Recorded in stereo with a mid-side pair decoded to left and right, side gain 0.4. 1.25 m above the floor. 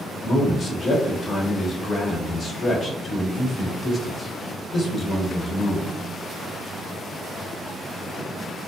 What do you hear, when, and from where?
0.2 s a man speaking: 50° left, 1.0 m